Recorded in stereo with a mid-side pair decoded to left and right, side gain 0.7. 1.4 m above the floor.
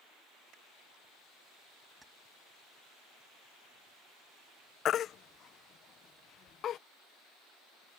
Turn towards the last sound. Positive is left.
turn(degrees=45)